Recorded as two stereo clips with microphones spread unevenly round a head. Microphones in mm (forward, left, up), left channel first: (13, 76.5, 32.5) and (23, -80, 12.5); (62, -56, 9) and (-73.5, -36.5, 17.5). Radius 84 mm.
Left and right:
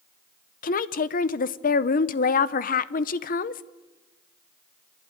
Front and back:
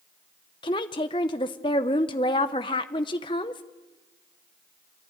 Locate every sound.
0.6 s a woman speaking: 55° left, 0.8 m